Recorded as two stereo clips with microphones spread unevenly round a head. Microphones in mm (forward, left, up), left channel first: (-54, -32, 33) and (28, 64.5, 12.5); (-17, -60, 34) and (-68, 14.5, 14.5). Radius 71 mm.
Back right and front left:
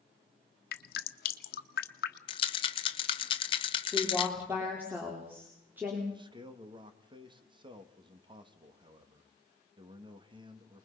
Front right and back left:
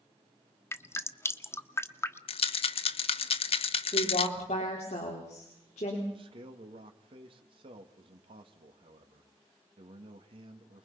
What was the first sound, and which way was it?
Dripping, 120° right.